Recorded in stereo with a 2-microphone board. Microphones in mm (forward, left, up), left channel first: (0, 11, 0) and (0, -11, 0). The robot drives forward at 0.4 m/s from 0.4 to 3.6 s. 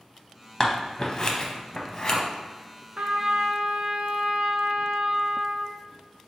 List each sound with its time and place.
0.6 s scissors: 30° left (ahead or behind), 0.7 m
3.0 s a trumpet: 55° right (ahead or behind), 0.6 m; by 5.8 s 70° right (ahead or behind), 0.5 m